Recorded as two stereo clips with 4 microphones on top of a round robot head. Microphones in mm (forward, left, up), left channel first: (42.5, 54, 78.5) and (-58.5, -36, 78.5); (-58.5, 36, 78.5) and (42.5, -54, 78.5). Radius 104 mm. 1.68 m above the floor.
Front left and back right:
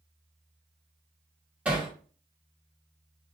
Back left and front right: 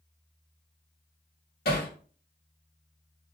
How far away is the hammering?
About 1.8 m.